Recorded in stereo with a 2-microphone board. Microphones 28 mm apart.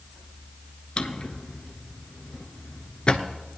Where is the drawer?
40° left (ahead or behind), 0.7 m.